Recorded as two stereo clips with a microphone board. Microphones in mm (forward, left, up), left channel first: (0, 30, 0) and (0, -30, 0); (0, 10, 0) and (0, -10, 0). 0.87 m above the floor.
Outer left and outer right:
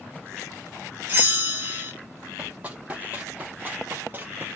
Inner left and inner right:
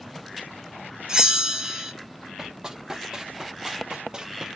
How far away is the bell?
About 0.8 m.